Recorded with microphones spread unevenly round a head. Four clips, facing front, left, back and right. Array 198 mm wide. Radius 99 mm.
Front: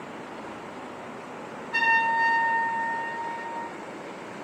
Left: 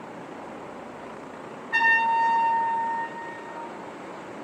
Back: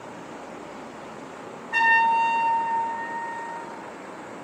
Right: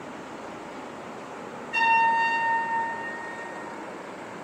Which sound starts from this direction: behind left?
A trumpet, at 1.7 s.